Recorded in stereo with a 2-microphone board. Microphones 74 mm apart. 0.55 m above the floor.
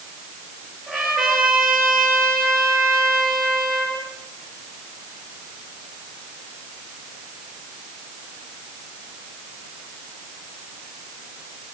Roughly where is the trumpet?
Centre.